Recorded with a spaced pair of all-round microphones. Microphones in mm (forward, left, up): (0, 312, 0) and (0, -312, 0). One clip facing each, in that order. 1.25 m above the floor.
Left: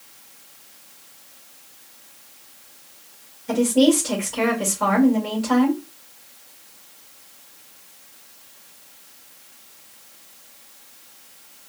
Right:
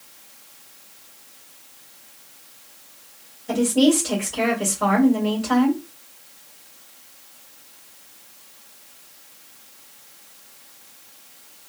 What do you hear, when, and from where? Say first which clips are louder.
3.5 s a woman speaking: left 1 dB; 35° left (ahead or behind), 1.7 m